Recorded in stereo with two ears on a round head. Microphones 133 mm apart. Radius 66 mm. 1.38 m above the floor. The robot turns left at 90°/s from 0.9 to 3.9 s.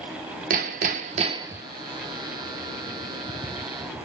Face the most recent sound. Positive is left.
turn(degrees=-15)